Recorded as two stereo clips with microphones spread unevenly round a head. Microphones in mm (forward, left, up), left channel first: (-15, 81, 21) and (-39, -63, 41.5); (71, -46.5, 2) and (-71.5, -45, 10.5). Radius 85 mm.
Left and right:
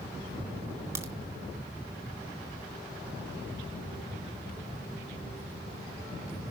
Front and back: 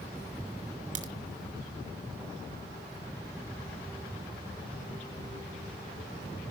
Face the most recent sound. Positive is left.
turn(degrees=-165)